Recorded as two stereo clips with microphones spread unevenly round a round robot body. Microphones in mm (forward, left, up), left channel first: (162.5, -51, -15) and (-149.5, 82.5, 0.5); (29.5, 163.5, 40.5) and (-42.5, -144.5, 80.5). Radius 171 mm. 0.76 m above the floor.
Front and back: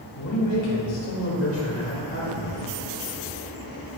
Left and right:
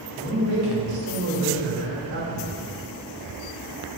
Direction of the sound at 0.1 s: 60° right.